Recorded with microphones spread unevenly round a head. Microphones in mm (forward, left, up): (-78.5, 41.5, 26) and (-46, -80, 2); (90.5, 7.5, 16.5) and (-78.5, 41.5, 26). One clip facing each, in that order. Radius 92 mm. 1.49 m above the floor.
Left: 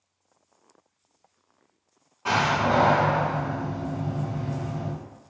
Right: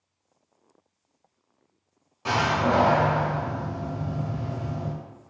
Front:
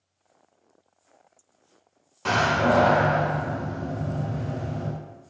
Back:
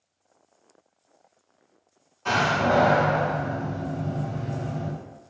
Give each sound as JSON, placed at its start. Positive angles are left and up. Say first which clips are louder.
{"t": 2.2, "sound": "a door slam", "louder": "even, front 1 dB", "azimuth_deg": -10, "distance_m": 1.8}